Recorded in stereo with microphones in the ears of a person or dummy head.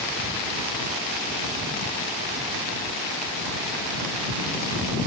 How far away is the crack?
I don't hear a crack.